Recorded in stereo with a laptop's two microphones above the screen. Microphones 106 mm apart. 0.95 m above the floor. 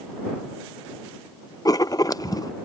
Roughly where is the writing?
Left.